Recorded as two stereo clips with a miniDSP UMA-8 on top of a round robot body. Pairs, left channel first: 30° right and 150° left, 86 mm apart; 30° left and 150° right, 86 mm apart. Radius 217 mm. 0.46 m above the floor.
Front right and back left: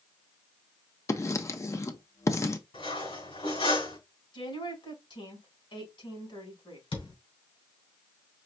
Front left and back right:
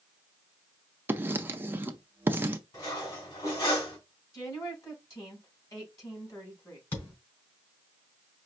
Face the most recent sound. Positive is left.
turn(degrees=-40)